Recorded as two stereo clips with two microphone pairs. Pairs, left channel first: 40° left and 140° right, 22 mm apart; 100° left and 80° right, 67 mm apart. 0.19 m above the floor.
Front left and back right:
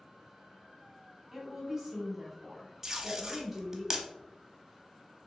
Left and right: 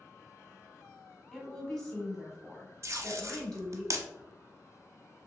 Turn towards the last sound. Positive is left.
turn(degrees=-80)